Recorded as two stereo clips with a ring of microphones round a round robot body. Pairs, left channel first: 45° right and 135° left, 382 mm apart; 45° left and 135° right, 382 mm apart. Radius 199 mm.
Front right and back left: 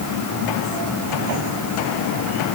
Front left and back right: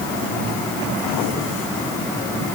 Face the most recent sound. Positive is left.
No sound to turn to.